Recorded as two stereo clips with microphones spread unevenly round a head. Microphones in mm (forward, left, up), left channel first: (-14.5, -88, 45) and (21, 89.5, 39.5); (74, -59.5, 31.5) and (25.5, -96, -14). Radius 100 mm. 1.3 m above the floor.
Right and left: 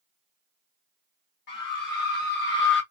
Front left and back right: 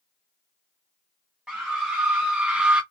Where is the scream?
70° right, 1.4 m; by 2.8 s 75° right, 0.7 m.